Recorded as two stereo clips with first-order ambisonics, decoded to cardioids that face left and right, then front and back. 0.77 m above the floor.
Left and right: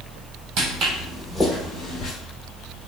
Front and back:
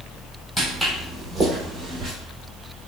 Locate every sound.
0.6 s footsteps: 90° right, 1.0 m; by 2.1 s 115° left, 1.1 m